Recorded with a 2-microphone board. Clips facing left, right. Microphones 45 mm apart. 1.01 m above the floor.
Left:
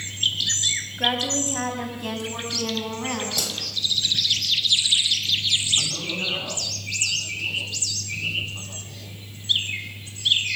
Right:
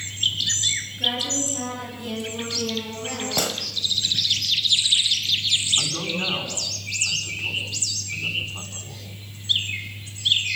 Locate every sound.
1.0 s a woman speaking: 55° left (ahead or behind), 6.5 m; by 3.5 s 70° left (ahead or behind), 9 m
3.4 s a gunshot: 40° right (ahead or behind), 1.9 m
5.8 s a man speaking: 25° right (ahead or behind), 9 m